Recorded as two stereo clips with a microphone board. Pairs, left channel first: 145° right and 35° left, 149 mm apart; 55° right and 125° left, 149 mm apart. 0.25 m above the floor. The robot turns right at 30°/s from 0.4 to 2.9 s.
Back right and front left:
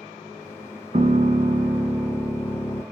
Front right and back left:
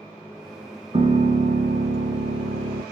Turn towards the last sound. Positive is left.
turn(degrees=135)